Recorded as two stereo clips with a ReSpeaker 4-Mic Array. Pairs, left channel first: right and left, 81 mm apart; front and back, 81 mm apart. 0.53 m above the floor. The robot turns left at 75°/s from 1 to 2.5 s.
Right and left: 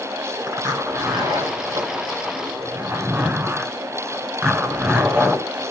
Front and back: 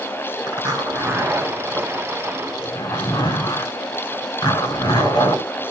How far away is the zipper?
About 5 m.